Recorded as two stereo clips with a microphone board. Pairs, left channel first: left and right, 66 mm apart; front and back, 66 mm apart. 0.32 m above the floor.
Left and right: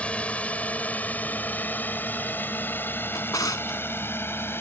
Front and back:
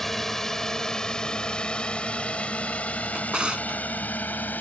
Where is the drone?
80° left; by 4.6 s 55° left.